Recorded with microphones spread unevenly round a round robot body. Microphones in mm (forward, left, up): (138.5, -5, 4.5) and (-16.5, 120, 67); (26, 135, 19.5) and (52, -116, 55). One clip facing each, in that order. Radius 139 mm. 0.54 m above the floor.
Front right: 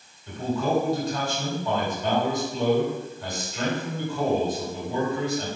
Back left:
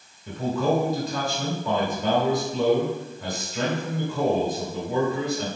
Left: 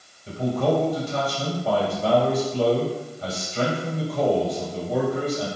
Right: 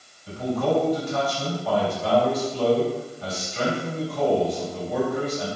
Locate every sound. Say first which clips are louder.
0.3 s a man speaking: back left 2 dB, left 1 dB; 155° left, 3 m